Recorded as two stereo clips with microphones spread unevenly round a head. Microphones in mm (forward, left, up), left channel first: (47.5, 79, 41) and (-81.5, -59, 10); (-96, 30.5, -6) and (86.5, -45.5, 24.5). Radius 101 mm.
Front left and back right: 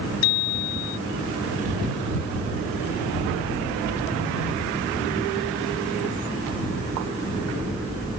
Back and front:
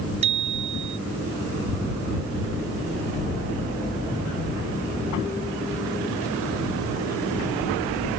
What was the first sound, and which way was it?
A bicycle bell, 40° left.